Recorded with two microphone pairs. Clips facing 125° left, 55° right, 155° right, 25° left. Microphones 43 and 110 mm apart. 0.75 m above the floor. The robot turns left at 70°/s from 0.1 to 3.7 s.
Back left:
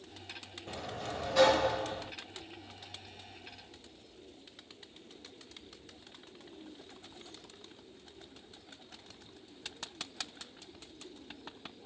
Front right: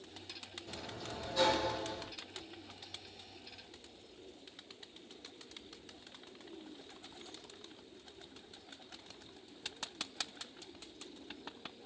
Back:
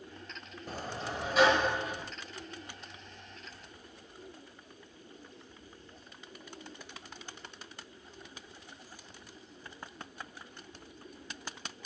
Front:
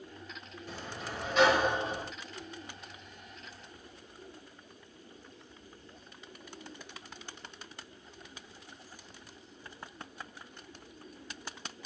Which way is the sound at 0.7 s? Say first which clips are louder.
Back left 6 dB, back 3 dB; 165° left.